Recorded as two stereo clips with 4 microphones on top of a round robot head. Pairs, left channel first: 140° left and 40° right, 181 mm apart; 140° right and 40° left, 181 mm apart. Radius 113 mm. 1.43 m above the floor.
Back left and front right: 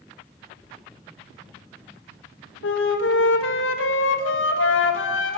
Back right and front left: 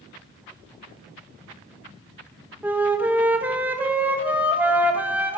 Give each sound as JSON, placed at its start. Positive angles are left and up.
{"t": 2.6, "sound": "a flute", "azimuth_deg": 125, "distance_m": 2.0}